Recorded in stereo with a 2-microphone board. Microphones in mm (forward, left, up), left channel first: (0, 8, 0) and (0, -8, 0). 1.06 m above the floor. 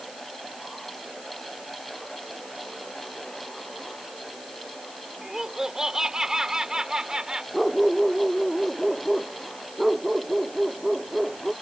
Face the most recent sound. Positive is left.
turn(degrees=-10)  # may be behind; listen again after turning